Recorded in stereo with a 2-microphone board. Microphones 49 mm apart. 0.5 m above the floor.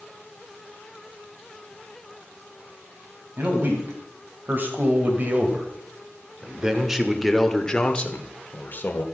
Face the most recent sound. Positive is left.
turn(degrees=45)  # may be behind; listen again after turning